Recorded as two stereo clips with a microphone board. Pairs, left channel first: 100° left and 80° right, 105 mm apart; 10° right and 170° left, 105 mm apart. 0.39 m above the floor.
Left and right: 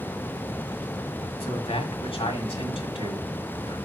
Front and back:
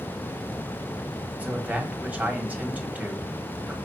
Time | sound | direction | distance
1.4 | a man speaking | 95° left | 1.8 m